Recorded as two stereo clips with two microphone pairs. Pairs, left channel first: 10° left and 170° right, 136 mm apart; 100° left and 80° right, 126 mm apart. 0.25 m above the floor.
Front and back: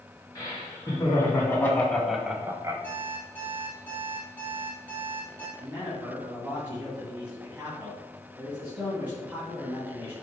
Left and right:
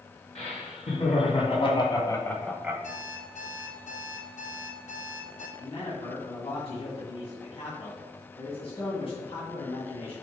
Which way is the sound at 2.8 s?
90° left.